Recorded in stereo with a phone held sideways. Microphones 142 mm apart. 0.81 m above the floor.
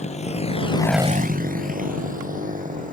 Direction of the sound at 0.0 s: 55° left (ahead or behind).